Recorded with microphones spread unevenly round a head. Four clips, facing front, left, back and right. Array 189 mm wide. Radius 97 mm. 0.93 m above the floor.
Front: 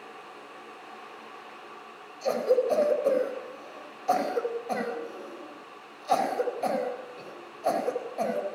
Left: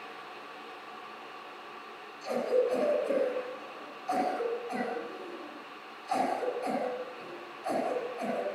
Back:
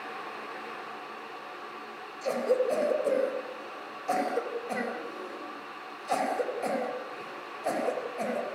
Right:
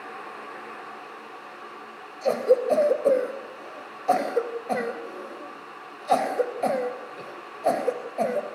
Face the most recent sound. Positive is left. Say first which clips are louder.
# right 7 dB, front 2 dB
turn(degrees=-85)